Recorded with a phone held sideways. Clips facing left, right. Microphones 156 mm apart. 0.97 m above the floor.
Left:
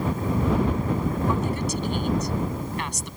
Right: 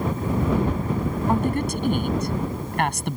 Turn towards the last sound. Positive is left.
turn(degrees=-70)  # may be behind; listen again after turning